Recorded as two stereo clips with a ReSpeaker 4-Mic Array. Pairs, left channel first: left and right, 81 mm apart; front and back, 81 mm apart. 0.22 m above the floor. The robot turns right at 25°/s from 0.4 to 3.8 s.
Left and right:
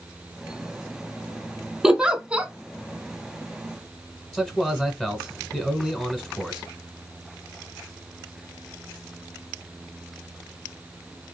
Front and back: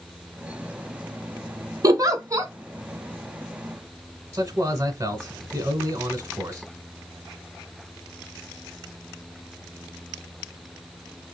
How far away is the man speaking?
About 1.2 m.